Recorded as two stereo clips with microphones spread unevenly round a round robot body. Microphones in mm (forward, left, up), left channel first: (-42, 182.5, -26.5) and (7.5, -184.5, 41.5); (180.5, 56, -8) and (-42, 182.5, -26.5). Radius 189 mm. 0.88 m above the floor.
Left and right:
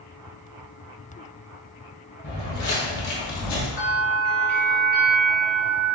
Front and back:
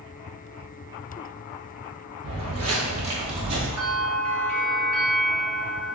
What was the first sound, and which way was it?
Footsteps, 150° left.